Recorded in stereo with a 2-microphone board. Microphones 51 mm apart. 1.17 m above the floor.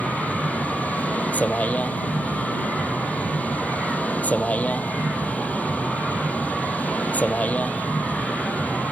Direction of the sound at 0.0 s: 30° left (ahead or behind).